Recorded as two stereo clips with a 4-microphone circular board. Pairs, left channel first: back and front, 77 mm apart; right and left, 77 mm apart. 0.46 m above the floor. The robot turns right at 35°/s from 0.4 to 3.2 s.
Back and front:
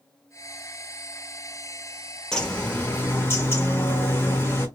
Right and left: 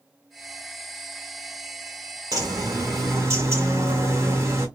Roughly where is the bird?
Left.